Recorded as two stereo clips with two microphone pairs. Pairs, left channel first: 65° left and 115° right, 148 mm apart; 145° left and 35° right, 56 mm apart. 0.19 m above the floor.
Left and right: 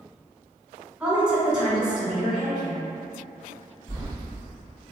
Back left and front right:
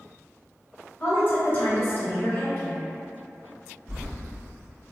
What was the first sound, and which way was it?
A woman speaking, 165° left.